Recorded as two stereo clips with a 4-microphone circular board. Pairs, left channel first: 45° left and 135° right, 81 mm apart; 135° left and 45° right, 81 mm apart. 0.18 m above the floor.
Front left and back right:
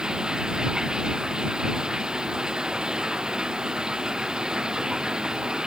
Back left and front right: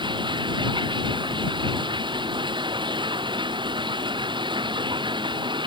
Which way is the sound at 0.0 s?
55° right.